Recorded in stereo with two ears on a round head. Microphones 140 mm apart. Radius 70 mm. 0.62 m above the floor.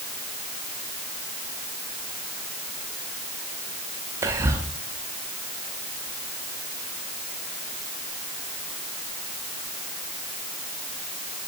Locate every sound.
4.2 s whispering: 20° right (ahead or behind), 0.6 m